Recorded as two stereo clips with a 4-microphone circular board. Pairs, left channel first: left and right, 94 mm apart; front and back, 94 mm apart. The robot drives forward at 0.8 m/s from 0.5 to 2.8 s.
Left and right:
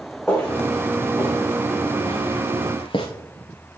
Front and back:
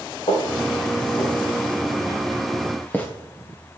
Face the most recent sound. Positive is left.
turn(degrees=70)